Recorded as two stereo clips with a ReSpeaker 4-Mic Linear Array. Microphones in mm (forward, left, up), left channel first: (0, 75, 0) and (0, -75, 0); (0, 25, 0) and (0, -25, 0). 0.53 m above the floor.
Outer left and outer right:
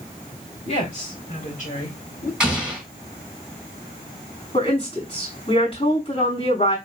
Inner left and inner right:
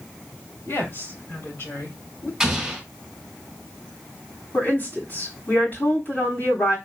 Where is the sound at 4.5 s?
40° left (ahead or behind), 3.5 m.